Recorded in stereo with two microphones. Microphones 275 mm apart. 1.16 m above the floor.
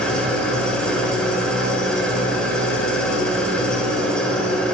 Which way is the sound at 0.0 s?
5° left (ahead or behind).